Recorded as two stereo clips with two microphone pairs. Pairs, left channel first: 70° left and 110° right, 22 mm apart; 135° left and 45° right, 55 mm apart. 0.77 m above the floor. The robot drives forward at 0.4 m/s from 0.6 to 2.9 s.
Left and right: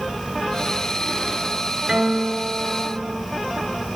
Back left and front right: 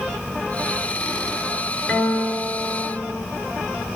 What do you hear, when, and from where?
1.9 s a guitar: 150° right, 4 m